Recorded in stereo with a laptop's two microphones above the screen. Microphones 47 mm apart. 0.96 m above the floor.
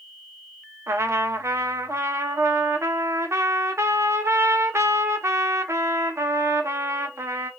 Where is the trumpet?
80° right, 0.5 m.